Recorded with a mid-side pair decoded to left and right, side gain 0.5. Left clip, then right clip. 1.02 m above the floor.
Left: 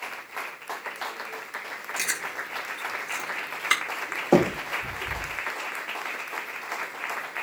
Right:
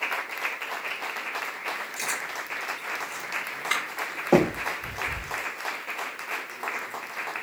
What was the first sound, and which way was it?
Chewing, 45° left.